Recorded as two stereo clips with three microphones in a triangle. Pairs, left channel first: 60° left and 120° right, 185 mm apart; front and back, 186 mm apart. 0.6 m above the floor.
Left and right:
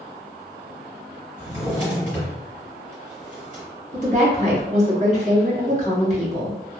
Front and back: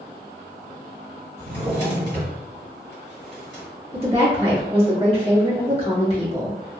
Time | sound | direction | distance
1.4 | a drawer | 160° right | 1.7 m
3.9 | a woman speaking | 140° right | 1.3 m